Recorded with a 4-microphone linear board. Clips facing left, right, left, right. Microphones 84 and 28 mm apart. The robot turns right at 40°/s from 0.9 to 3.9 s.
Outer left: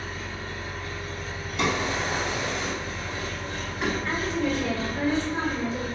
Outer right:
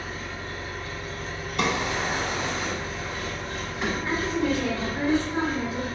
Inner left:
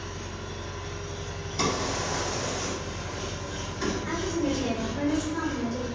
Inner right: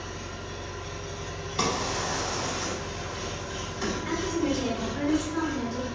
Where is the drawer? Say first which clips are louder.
Even, even; 85° right, 2.0 m; by 3.9 s 5° left (ahead or behind), 2.0 m.